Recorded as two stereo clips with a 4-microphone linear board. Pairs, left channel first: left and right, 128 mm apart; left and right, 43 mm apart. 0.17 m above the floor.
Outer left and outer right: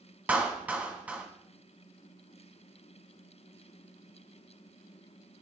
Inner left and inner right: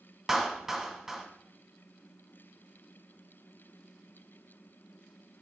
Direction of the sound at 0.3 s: 10° right (ahead or behind).